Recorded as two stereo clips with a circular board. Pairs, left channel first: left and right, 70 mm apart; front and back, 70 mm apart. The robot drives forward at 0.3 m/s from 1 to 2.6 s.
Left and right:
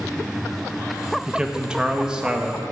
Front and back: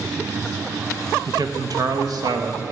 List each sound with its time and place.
1.3 s a man speaking: 165° right, 0.7 m; by 2.6 s 170° right, 1.0 m